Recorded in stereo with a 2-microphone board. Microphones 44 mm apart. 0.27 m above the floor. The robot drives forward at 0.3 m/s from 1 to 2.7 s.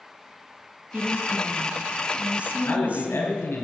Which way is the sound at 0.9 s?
45° right (ahead or behind).